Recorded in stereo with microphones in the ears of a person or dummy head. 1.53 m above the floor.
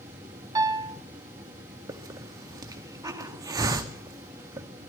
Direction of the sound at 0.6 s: 25° right (ahead or behind).